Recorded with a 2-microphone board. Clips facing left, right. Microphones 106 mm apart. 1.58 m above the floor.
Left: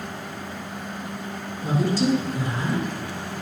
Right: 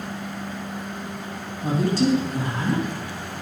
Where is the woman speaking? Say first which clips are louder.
Right 1 dB; 60° right (ahead or behind), 3 m.